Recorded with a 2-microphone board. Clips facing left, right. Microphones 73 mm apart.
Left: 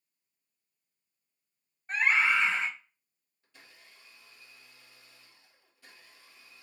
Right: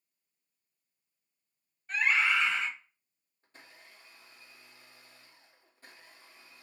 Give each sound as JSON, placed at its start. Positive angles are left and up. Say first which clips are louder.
{"t": 1.9, "sound": "a scream", "louder": "left 2 dB", "side_deg": 35, "distance_m": 0.8}
{"t": 3.4, "sound": "a blender", "louder": "right 2 dB", "side_deg": -40, "distance_m": 1.1}